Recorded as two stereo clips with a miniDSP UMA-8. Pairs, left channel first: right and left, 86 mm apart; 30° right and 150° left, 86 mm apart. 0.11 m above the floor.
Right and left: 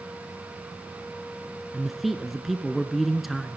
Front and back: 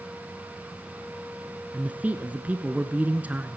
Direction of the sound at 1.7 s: 175° left.